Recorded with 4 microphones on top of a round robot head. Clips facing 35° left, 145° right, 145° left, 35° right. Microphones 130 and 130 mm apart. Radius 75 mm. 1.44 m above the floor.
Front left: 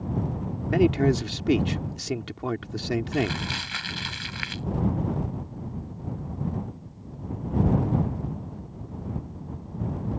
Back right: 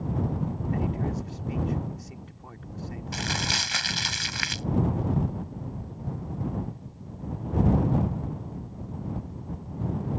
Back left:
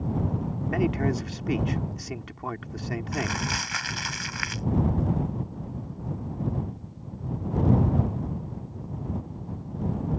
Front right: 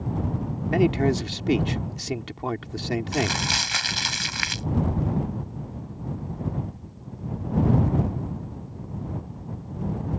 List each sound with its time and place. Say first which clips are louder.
0.7 s a man speaking: front left 12 dB, front right 5 dB; 25° left
3.1 s crumpling: front left 5 dB, front right 4 dB; 95° right